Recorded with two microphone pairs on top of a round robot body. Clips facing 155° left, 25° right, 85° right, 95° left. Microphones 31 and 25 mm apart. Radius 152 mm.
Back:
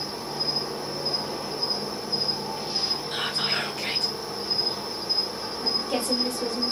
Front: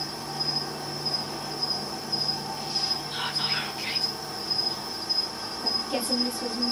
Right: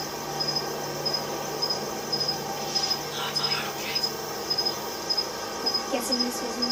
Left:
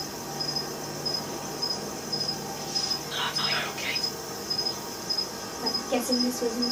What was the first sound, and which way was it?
An insect, 145° right.